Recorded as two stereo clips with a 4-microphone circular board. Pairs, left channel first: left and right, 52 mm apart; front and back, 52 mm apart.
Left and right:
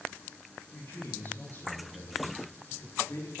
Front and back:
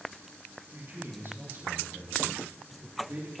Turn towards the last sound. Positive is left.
turn(degrees=130)